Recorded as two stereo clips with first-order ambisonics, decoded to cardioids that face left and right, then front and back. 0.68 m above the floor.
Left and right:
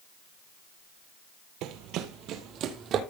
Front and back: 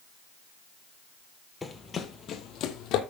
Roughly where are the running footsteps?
Right.